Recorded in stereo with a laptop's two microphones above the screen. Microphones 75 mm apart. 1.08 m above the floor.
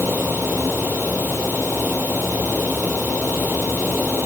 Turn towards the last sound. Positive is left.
turn(degrees=-20)  # may be behind; listen again after turning